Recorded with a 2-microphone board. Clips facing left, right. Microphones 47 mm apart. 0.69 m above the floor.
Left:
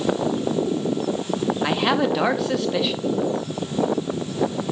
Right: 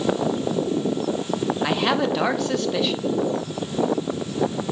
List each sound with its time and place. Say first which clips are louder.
1.6 s a man speaking: left 1 dB; 5° left (ahead or behind), 1.0 m